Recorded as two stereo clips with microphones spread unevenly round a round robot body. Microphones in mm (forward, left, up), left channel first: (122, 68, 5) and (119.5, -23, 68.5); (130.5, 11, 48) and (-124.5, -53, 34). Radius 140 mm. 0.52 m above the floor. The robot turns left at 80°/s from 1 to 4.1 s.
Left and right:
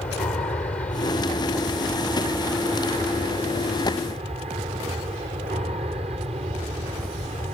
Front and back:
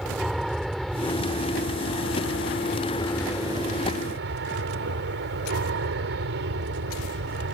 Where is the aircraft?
105° left; by 7.5 s 145° right.